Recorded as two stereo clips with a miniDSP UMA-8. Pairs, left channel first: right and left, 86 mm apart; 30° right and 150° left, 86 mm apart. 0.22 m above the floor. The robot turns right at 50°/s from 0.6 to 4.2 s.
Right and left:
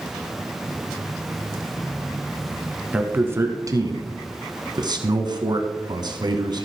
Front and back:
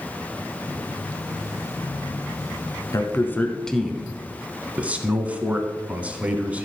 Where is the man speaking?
15° left, 1.7 m; by 6.7 s 80° left, 1.7 m.